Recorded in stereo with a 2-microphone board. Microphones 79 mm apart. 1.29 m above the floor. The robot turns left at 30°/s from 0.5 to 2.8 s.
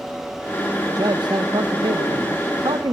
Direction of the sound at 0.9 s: 55° right.